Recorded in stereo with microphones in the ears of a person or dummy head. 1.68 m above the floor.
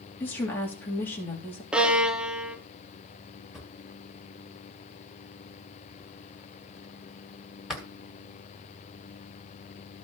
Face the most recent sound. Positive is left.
turn(degrees=0)  # may be behind; listen again after turning